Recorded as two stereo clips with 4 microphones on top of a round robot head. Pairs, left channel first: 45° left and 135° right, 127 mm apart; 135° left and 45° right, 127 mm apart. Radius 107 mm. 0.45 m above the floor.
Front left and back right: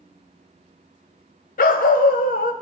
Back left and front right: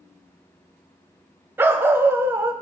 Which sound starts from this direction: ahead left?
A dog barking, at 1.6 s.